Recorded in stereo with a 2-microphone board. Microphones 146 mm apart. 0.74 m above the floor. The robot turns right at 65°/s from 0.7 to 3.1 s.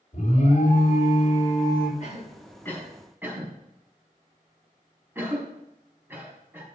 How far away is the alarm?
About 3.5 m.